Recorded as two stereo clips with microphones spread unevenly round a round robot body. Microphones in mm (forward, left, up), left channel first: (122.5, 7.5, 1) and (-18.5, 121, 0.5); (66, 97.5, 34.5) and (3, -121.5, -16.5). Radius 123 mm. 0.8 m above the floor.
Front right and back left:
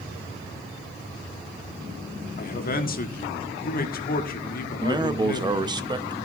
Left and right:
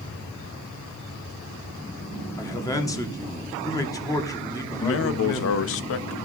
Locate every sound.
2.4 s a man speaking: 5° right, 1.5 m
4.8 s a man speaking: 85° left, 0.7 m